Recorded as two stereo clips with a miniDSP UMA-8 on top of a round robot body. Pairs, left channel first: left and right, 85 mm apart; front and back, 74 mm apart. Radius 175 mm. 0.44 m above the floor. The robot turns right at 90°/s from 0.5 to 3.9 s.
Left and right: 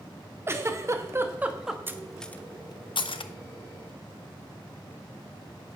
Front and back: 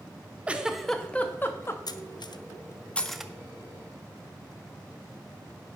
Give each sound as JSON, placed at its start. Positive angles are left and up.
{"t": 0.5, "sound": "a giggle", "azimuth_deg": -120, "distance_m": 1.3}
{"t": 1.9, "sound": "cutlery clinking", "azimuth_deg": -25, "distance_m": 0.7}